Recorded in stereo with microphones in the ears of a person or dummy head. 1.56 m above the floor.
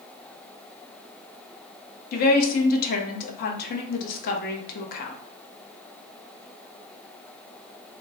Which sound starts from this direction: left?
A woman speaking, at 2.1 s.